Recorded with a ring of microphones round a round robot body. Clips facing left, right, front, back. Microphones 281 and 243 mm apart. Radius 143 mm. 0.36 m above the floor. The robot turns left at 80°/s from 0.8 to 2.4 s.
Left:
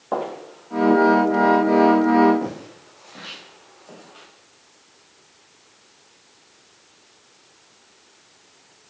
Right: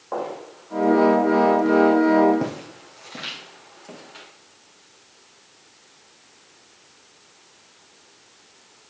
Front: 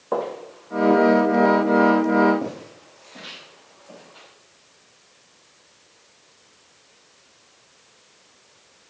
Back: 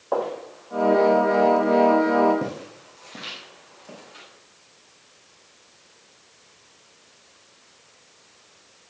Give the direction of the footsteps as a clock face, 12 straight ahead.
10 o'clock.